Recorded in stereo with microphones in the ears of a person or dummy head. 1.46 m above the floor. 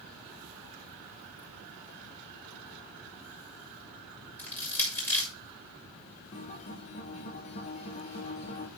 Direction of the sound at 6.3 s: 30° left (ahead or behind).